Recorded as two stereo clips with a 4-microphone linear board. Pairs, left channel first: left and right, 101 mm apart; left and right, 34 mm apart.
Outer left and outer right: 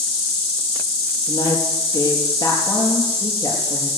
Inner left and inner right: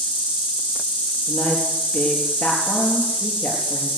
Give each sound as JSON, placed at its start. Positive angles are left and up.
{"t": 0.0, "sound": "an insect", "side_deg": 70, "distance_m": 9.5}
{"t": 1.3, "sound": "a woman speaking", "side_deg": 40, "distance_m": 5.5}